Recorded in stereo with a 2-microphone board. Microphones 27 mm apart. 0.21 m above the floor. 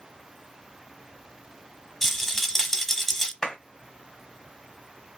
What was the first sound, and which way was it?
A rattle, 10° left (ahead or behind).